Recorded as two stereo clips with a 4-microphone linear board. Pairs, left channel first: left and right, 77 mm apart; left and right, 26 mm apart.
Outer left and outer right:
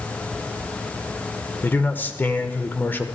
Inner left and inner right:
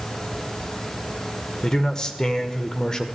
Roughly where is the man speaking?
Left.